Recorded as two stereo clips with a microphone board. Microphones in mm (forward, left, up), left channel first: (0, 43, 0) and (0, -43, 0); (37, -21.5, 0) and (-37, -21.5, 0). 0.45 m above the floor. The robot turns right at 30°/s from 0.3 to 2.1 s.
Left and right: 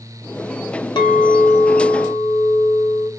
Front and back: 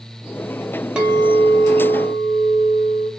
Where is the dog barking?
No dog barking in this recording.